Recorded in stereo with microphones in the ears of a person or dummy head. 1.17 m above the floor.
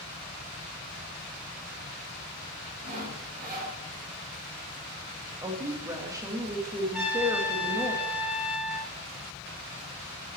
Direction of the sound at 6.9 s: 10° right (ahead or behind).